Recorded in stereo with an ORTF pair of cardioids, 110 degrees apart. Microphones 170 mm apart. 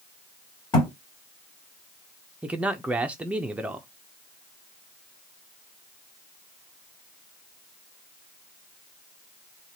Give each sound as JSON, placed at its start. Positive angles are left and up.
{"t": 0.7, "sound": "a thud", "azimuth_deg": 25, "distance_m": 2.0}
{"t": 2.4, "sound": "a man speaking", "azimuth_deg": -5, "distance_m": 0.6}